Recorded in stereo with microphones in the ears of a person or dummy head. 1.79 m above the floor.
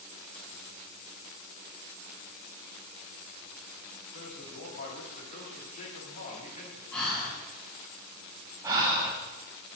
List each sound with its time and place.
4.1 s a man speaking: 45° left (ahead or behind), 2.5 m
6.9 s breathing: 10° left (ahead or behind), 3.5 m
8.6 s breathing: 20° right (ahead or behind), 1.1 m